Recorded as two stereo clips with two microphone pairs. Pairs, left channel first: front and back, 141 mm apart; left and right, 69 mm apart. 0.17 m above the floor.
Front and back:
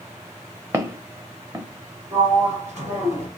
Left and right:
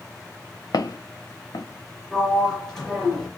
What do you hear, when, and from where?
0.7 s footsteps: 110° left, 0.6 m
2.1 s a sliding door: straight behind, 2 m